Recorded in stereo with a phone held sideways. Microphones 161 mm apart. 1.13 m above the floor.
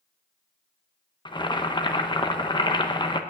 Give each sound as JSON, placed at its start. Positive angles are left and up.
{"t": 1.2, "sound": "boiling", "side_deg": 30, "distance_m": 0.7}